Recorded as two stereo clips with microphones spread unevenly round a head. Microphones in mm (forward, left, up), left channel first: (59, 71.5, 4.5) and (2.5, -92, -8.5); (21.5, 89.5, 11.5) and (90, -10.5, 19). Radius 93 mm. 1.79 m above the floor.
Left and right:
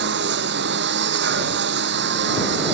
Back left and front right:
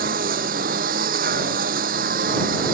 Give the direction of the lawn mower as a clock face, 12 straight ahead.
3 o'clock.